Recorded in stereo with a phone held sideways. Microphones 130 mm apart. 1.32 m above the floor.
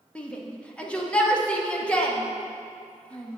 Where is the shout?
10° left (ahead or behind), 1.0 m.